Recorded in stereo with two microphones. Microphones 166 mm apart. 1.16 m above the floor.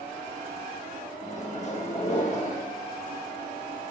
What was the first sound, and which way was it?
A microwave, 45° left (ahead or behind).